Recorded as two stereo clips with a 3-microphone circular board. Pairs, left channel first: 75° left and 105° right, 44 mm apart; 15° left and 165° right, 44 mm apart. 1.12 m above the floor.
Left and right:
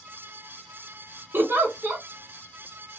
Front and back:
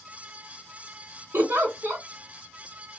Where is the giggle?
140° right, 1.1 m.